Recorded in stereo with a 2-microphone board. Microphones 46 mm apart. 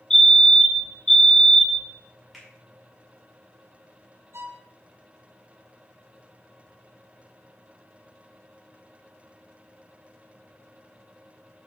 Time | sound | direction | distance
0.1 | a fire alarm | 15° left (ahead or behind) | 1.5 m
2.3 | a finger snap | centre (ahead or behind) | 5 m
4.3 | a violin | 65° right (ahead or behind) | 1.6 m